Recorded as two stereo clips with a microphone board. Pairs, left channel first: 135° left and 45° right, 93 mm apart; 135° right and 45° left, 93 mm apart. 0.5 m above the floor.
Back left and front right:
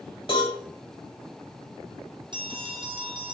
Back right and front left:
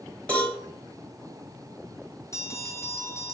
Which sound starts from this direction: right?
A bell, at 2.3 s.